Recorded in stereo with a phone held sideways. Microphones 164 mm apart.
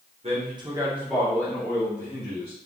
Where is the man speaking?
40° right (ahead or behind), 1.1 m; by 2.5 s 45° left (ahead or behind), 1.4 m.